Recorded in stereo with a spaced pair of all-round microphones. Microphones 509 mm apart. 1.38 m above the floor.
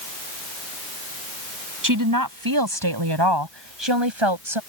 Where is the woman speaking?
35° right (ahead or behind); by 4.6 s 65° right (ahead or behind).